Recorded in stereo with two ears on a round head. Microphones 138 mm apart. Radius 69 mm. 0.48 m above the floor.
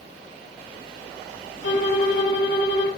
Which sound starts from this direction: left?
A violin, at 1.6 s.